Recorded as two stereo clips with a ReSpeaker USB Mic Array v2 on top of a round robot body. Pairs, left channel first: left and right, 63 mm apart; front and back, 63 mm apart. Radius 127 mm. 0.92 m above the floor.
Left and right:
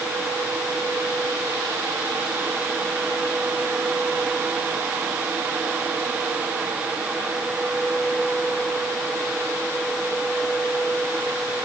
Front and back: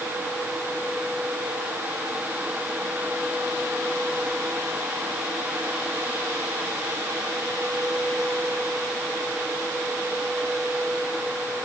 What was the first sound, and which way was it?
Only background noise.